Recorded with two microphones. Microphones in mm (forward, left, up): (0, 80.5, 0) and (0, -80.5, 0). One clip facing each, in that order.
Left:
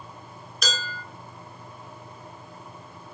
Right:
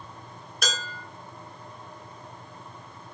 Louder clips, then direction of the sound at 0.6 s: Left 1 dB; 65° right (ahead or behind).